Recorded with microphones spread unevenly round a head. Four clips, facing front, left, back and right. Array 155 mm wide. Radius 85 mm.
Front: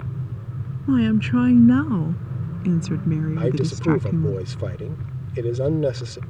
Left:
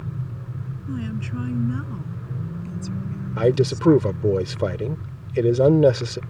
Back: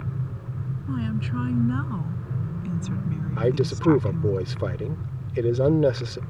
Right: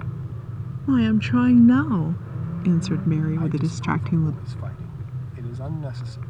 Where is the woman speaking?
35° right; by 4.4 s 55° right.